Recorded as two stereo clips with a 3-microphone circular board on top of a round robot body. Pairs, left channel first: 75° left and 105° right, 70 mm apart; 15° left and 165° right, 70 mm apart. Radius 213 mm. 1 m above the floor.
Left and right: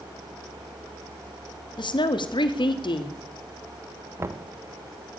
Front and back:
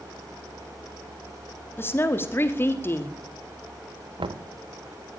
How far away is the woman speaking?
About 2 m.